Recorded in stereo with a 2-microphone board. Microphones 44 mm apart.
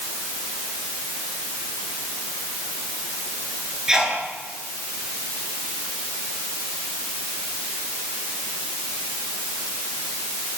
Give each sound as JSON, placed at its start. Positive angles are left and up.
{"t": 3.9, "sound": "a sneeze", "side_deg": -15, "distance_m": 9.0}